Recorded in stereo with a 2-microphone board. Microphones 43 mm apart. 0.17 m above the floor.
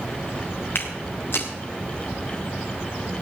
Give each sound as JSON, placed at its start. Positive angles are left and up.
{"t": 0.8, "sound": "footsteps", "side_deg": 60, "distance_m": 3.5}